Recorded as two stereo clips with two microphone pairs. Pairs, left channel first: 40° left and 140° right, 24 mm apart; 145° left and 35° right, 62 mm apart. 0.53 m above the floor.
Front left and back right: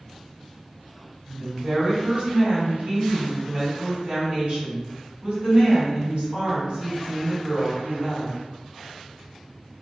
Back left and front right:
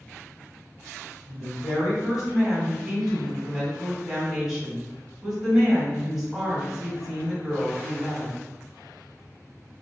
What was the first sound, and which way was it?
A woman speaking, 115° right.